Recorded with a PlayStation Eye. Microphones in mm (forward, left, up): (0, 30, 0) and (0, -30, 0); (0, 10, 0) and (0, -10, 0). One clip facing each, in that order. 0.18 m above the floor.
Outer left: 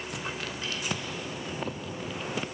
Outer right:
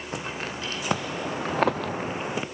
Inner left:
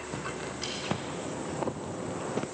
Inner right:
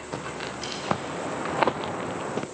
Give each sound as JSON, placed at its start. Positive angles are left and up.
{"t": 0.1, "sound": "footsteps", "side_deg": -35, "distance_m": 2.5}